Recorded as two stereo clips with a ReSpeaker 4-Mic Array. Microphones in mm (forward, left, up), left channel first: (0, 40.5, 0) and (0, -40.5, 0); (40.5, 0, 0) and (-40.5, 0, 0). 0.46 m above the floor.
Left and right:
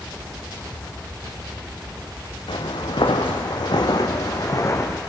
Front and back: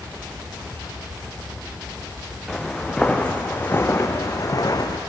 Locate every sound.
2.5 s footsteps: 90° left, 2.5 m; by 5.0 s 30° left, 2.5 m